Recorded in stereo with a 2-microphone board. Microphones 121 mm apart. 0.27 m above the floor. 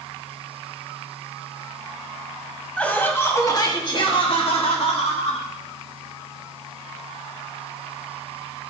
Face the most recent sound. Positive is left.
turn(degrees=65)  # may be behind; listen again after turning